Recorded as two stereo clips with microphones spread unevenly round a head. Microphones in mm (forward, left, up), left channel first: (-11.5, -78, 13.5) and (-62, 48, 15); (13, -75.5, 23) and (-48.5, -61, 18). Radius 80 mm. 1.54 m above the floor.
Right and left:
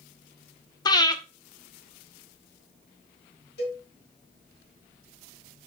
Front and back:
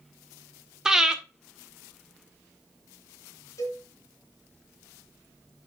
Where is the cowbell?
40° right, 4 m.